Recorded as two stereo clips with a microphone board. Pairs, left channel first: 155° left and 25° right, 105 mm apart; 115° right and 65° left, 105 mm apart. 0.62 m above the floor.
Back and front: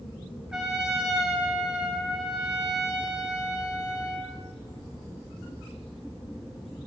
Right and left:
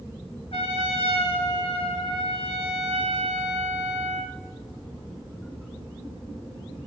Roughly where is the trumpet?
Right.